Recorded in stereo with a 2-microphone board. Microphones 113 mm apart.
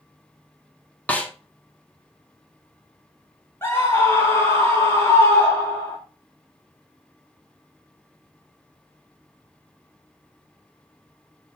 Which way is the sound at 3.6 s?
20° left (ahead or behind).